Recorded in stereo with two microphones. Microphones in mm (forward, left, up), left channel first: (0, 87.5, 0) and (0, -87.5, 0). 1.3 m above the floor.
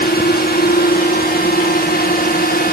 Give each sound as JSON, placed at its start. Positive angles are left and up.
{"t": 0.0, "sound": "a drone", "side_deg": 65}